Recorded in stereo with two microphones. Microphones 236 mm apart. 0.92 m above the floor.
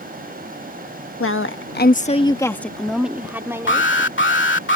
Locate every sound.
1.2 s a woman speaking: 65° left (ahead or behind); by 3.9 s 15° right (ahead or behind)
3.7 s an alarm: 55° left (ahead or behind)